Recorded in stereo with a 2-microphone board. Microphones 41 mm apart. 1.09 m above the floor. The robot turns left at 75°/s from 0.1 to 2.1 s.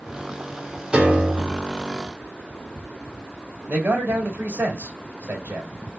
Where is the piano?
25° right, 1.4 m; by 1.7 s 80° right, 1.4 m.